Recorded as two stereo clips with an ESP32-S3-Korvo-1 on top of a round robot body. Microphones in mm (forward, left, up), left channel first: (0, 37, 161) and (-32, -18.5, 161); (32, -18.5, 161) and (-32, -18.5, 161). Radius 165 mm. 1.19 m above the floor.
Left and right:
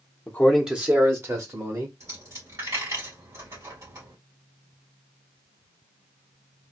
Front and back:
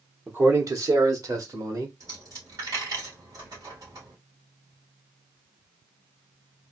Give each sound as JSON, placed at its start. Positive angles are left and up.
{"t": 0.3, "sound": "a man speaking", "azimuth_deg": 120, "distance_m": 0.8}
{"t": 2.0, "sound": "a dropped coin", "azimuth_deg": -155, "distance_m": 2.5}